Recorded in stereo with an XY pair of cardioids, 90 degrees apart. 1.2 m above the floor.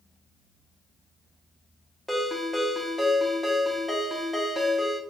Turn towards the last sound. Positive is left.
turn(degrees=-5)